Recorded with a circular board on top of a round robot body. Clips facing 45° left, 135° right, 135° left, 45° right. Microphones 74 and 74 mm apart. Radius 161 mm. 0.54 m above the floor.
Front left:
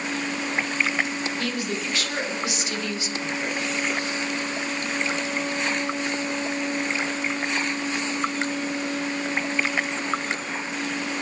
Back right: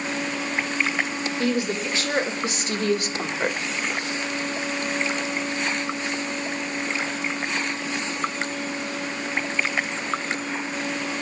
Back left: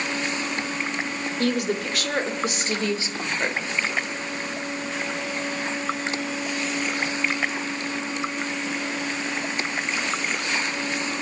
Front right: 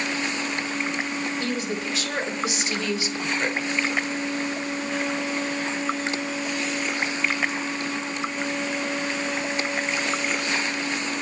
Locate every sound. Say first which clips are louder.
1.4 s a woman speaking: back right 4 dB, back left 4 dB; 155° left, 3.5 m; by 3.6 s 150° right, 2 m